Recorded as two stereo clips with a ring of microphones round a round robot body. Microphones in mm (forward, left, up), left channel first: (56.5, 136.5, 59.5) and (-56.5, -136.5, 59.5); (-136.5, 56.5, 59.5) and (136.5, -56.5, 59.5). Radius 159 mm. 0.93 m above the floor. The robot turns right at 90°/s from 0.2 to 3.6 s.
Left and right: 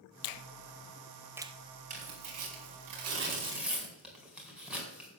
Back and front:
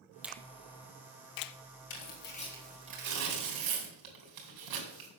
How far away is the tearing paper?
About 4 m.